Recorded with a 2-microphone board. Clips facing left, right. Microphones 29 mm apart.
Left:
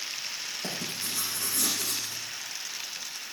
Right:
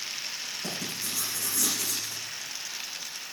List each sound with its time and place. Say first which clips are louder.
0.6 s writing: even; 60° left (ahead or behind), 8.5 m